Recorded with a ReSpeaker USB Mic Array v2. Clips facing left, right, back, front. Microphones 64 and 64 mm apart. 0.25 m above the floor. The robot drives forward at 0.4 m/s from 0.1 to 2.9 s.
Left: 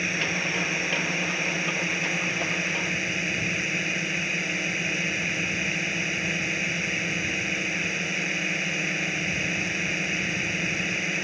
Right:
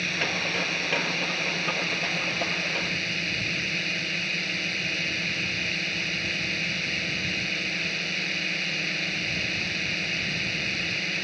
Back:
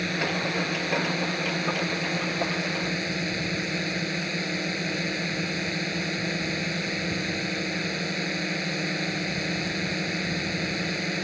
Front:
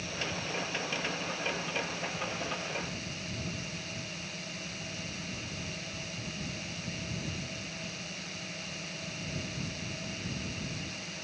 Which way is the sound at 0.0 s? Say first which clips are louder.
Left 1 dB, back 10 dB; 165° left.